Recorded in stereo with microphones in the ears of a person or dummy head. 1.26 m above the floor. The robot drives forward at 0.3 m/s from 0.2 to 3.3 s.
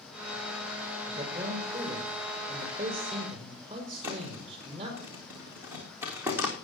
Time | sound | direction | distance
1.1 | a man speaking | 30° right (ahead or behind) | 5.5 m
4.0 | a thud | 15° right (ahead or behind) | 4 m